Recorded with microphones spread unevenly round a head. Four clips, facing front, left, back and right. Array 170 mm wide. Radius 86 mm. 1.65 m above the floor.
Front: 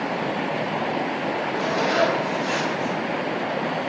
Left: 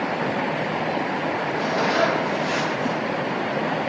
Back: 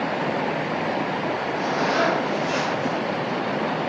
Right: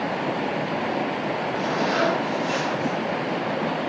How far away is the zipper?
About 2 m.